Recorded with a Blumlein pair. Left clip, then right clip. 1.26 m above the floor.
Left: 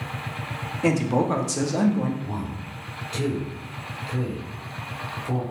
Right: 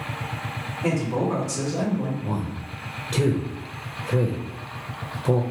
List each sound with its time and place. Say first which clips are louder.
0.8 s a man speaking: left 3 dB; 65° left, 0.7 m
2.2 s a man speaking: right 2 dB; 55° right, 0.6 m